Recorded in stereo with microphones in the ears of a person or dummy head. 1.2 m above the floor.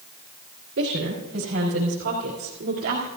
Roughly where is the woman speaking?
Right.